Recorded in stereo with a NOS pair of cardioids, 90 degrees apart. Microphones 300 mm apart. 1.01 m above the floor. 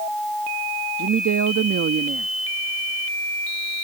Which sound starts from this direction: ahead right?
A woman speaking, at 1.0 s.